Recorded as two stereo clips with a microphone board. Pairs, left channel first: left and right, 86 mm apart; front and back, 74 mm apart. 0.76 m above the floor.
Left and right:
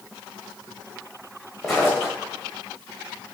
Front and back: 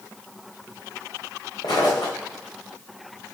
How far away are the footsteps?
About 2 m.